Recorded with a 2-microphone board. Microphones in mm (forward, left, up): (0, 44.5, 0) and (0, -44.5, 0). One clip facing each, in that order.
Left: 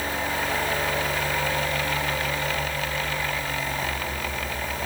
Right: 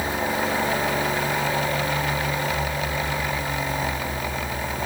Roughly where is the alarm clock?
I don't hear an alarm clock.